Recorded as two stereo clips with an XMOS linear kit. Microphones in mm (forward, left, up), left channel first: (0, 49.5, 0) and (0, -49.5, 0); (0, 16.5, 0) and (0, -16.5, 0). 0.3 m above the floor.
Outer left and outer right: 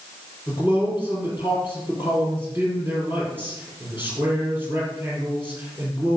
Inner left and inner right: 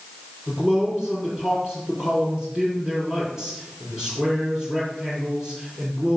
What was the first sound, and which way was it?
A man speaking, 25° right (ahead or behind).